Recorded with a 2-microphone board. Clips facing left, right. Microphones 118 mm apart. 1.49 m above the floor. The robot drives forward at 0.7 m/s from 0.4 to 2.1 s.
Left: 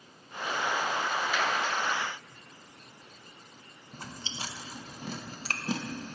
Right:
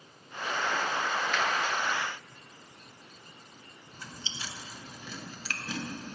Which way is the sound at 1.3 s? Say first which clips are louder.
Even; 5° left (ahead or behind).